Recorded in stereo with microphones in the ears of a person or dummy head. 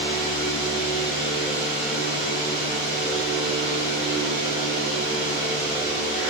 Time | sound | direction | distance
0.0 | a fan | 40° left (ahead or behind) | 5 m